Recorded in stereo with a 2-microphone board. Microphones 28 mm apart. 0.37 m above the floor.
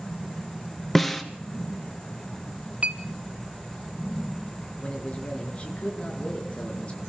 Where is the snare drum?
5° left (ahead or behind), 1.7 m.